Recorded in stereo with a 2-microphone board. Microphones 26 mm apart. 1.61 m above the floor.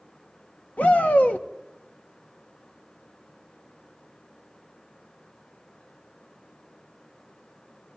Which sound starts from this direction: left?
A shout, at 0.8 s.